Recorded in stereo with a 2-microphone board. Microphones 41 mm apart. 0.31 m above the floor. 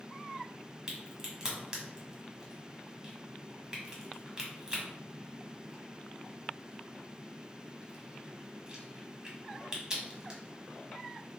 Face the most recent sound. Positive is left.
turn(degrees=-15)  # may be behind; listen again after turning